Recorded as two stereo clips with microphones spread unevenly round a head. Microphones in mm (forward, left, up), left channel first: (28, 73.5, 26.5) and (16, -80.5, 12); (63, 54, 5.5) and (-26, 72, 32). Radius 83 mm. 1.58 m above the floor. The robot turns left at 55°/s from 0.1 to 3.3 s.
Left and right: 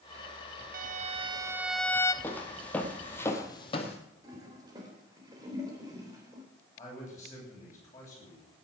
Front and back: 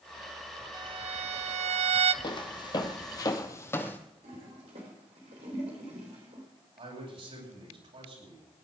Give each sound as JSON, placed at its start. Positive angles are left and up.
{"t": 0.7, "sound": "a violin", "azimuth_deg": -125, "distance_m": 0.6}
{"t": 2.2, "sound": "footsteps", "azimuth_deg": 20, "distance_m": 2.0}
{"t": 4.2, "sound": "a toilet flushing", "azimuth_deg": -165, "distance_m": 3.5}
{"t": 6.8, "sound": "a man speaking", "azimuth_deg": 160, "distance_m": 9.0}